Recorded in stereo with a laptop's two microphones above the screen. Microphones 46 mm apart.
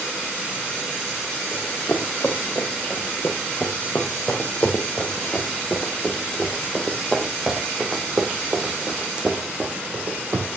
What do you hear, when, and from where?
1.5 s running footsteps: 50° left (ahead or behind), 4 m; by 10.5 s 35° right (ahead or behind), 3 m